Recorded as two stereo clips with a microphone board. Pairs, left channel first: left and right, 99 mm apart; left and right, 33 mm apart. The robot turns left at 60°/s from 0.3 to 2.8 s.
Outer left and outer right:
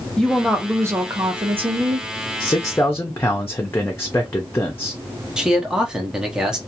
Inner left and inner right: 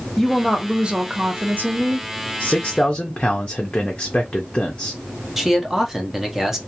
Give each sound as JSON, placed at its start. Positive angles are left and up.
{"t": 0.2, "sound": "a woman speaking", "azimuth_deg": 5, "distance_m": 0.8}
{"t": 2.4, "sound": "a man speaking", "side_deg": 45, "distance_m": 0.5}
{"t": 5.4, "sound": "a man speaking", "side_deg": -5, "distance_m": 0.6}